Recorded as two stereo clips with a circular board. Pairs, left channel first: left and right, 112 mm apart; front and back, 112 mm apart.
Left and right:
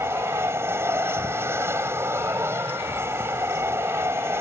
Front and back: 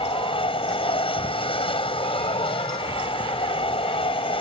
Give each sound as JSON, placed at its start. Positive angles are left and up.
{"t": 0.0, "sound": "an aircraft", "azimuth_deg": -25}